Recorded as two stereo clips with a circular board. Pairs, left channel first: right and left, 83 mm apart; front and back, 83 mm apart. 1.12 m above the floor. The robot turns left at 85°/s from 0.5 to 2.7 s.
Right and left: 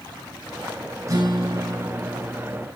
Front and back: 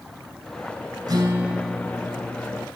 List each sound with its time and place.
1.1 s a guitar: 140° left, 7 m; by 2.6 s 5° left, 7 m